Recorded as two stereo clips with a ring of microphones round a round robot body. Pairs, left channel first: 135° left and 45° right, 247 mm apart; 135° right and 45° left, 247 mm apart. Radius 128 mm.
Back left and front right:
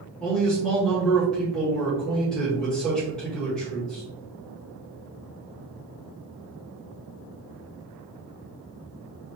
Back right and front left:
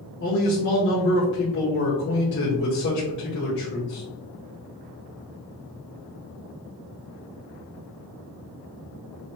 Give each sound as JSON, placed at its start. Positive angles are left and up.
{"t": 0.2, "sound": "a man speaking", "azimuth_deg": -140, "distance_m": 1.3}